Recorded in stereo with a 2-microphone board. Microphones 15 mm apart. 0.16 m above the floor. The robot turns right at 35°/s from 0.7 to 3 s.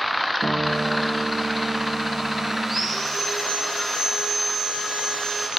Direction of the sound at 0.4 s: 140° left.